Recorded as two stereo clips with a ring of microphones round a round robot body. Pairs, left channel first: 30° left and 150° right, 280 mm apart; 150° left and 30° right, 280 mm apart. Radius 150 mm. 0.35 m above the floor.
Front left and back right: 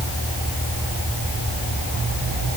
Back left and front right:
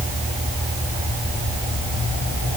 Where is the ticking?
I don't hear ticking.